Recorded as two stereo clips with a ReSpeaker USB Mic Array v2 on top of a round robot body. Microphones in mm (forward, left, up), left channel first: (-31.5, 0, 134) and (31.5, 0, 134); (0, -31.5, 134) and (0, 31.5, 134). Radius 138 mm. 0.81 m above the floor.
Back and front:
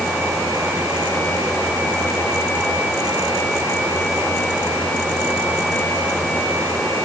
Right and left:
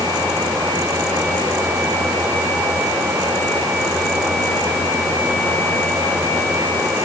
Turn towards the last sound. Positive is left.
No sound to turn to.